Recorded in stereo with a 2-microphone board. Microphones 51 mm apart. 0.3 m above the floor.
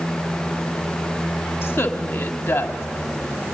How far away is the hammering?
No hammering in this recording.